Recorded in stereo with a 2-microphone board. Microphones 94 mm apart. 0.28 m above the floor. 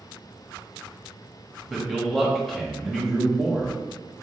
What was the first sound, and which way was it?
A man speaking, 5° left (ahead or behind).